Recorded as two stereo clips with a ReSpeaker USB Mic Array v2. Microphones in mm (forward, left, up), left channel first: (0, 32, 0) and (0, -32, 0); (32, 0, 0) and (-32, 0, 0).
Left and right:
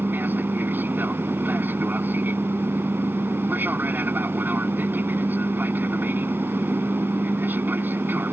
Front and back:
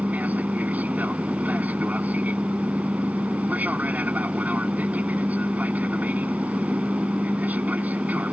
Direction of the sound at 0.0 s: 130° right.